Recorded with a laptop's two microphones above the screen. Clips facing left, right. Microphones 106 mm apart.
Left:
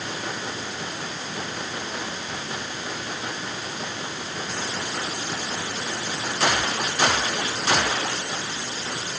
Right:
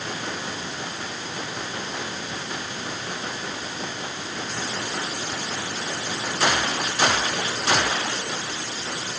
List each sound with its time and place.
Only background noise.